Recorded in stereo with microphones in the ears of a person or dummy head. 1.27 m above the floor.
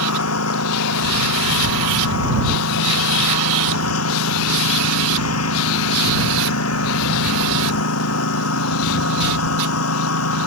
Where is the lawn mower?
85° left.